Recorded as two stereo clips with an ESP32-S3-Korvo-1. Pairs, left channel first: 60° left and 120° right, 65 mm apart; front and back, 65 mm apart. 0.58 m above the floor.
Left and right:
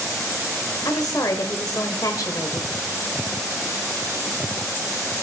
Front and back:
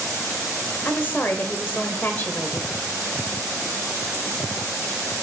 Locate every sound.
0.8 s a woman speaking: 55° left, 1.8 m